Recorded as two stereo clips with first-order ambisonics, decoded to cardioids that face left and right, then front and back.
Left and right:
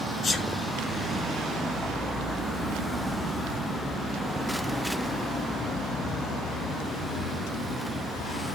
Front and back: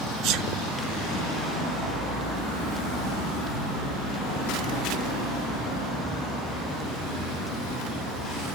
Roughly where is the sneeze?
Behind.